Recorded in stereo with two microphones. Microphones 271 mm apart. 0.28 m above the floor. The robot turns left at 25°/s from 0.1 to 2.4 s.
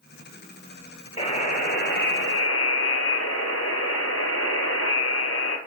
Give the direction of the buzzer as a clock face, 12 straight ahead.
7 o'clock.